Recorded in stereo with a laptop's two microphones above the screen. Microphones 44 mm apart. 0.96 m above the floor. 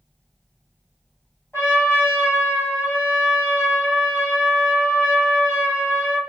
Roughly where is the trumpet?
Left.